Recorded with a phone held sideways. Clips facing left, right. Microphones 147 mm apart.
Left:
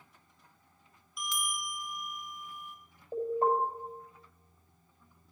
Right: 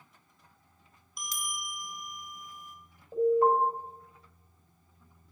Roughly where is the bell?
Right.